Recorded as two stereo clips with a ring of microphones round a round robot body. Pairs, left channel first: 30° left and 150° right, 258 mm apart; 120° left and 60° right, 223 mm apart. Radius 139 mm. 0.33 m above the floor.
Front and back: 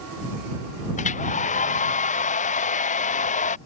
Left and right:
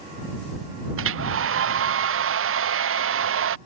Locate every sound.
1.0 s a hair dryer: 35° right